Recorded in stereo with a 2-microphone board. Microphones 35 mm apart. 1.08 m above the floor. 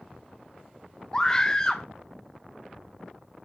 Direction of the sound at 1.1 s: 20° left (ahead or behind).